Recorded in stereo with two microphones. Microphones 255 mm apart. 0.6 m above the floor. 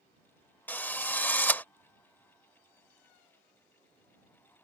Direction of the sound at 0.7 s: 5° left (ahead or behind).